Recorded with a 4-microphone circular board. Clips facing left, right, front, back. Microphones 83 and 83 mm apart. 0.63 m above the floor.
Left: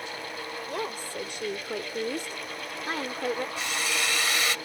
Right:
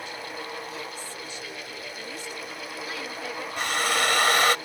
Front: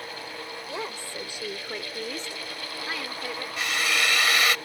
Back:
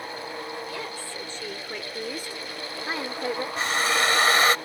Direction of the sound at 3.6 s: 125° right.